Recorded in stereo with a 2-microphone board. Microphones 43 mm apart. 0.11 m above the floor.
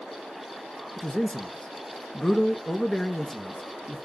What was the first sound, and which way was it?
A man speaking, 15° left (ahead or behind).